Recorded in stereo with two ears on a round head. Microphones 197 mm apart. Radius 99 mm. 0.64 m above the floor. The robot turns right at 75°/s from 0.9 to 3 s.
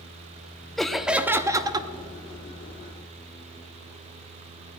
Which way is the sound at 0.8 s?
Centre (ahead or behind).